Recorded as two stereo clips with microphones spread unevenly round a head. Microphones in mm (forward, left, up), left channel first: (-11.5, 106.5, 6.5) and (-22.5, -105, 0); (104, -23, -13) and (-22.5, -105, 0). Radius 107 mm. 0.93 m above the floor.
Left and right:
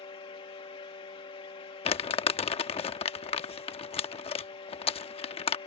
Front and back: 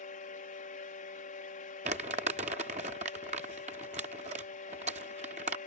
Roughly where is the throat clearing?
No throat clearing in this recording.